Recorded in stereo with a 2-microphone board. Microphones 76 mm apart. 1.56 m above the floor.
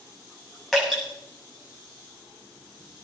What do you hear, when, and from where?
0.7 s dripping: centre (ahead or behind), 7.5 m